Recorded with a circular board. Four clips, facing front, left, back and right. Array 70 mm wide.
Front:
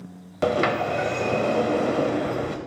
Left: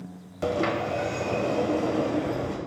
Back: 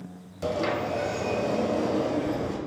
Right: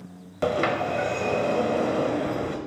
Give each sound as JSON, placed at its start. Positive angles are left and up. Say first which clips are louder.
{"t": 0.4, "sound": "a sliding door", "louder": "right 2 dB, front 5 dB", "azimuth_deg": -30, "distance_m": 0.8}